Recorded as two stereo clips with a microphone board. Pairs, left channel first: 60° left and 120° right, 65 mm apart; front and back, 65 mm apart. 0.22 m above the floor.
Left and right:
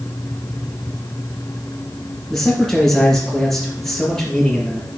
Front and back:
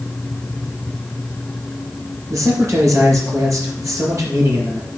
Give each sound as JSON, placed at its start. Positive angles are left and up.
{"t": 2.3, "sound": "a man speaking", "azimuth_deg": 140, "distance_m": 4.0}